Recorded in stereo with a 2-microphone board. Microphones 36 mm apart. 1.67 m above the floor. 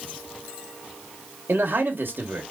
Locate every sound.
1.5 s a man speaking: 70° right (ahead or behind), 1.5 m